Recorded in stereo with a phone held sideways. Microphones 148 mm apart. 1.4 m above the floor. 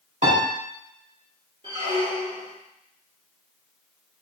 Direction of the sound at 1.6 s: 50° right (ahead or behind).